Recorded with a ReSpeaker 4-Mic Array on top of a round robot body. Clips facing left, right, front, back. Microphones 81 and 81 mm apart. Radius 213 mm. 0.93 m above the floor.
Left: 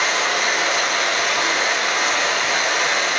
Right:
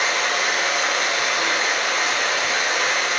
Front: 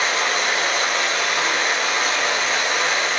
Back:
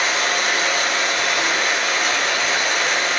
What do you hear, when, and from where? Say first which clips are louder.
0.0 s running water: left 2 dB, even; 60° left, 1.2 m